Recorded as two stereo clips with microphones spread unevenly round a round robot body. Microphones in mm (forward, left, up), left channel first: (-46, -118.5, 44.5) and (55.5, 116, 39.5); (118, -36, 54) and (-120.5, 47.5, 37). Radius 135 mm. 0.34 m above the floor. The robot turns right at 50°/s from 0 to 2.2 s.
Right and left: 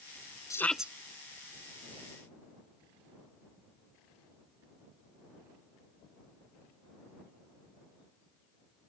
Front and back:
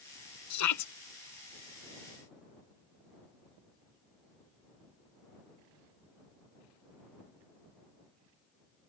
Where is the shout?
35° right; by 0.9 s 15° right.